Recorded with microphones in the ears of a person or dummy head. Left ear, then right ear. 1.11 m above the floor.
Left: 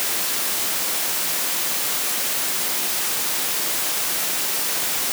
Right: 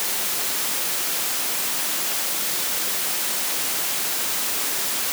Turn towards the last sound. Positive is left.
No sound to turn to.